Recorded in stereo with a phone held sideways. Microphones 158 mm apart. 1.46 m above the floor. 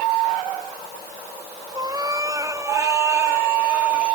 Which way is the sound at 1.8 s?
25° right (ahead or behind).